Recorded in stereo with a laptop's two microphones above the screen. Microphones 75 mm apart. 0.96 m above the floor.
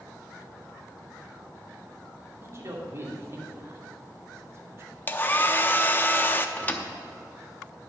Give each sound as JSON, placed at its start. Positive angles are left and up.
{"t": 2.4, "sound": "a man speaking", "side_deg": -40, "distance_m": 2.5}
{"t": 5.1, "sound": "a hair dryer", "side_deg": 25, "distance_m": 0.6}
{"t": 6.6, "sound": "a thud", "side_deg": 25, "distance_m": 0.6}